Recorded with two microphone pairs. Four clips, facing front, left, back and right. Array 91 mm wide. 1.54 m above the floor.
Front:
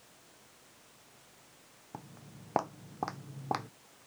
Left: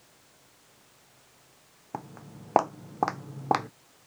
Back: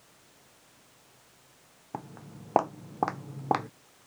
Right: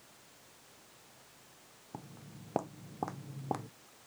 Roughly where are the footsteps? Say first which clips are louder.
Left 9 dB, back 8 dB; left.